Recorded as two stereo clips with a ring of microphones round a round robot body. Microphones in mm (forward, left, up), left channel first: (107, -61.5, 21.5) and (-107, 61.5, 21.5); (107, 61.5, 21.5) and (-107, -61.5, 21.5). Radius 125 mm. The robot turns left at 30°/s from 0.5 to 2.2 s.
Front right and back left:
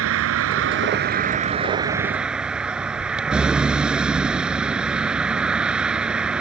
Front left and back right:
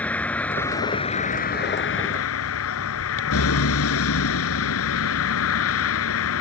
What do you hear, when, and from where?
0.0 s a vehicle: 115° left; by 6.4 s 65° left